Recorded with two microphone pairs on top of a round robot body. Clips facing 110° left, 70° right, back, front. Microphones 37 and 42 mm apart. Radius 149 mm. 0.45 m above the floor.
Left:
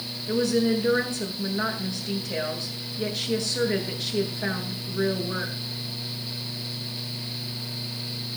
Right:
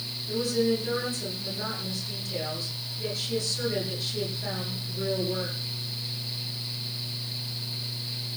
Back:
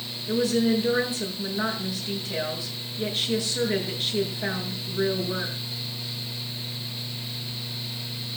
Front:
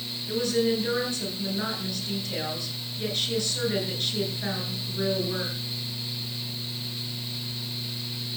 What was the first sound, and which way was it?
A woman speaking, 110° left.